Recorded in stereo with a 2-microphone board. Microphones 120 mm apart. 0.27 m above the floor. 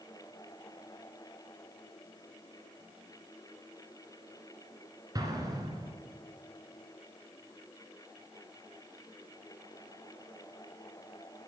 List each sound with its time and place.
5.2 s an explosion: 35° right (ahead or behind), 1.8 m